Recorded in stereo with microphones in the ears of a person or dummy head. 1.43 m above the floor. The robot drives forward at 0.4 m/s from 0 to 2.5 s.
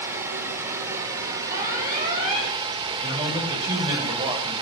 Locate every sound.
0.0 s running water: 15° right (ahead or behind), 2.5 m; by 4.6 s 25° right (ahead or behind), 1.7 m
1.5 s an alarm: 40° right (ahead or behind), 6.5 m
3.0 s a man speaking: 30° right (ahead or behind), 7 m